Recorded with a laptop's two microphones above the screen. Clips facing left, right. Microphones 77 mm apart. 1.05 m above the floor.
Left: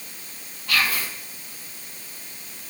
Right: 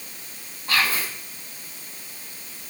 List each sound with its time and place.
0.7 s whispering: 30° right (ahead or behind), 1.0 m